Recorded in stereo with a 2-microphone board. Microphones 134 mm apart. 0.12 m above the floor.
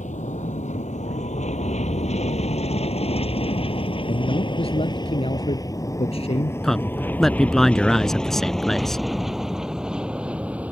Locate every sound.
0.0 s an aircraft: 65° left (ahead or behind); by 10.7 s 10° right (ahead or behind)
4.1 s a man speaking: 50° left (ahead or behind)
6.6 s a man speaking: 5° left (ahead or behind)